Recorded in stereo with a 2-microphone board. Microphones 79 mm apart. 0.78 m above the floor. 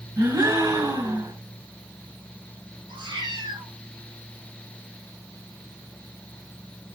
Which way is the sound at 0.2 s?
50° right (ahead or behind).